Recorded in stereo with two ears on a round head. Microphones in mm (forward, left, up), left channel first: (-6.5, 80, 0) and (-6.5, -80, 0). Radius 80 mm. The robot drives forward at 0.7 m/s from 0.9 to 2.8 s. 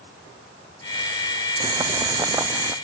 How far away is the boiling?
About 0.5 m.